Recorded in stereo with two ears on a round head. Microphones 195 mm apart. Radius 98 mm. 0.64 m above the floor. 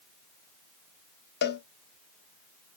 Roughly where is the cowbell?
Left.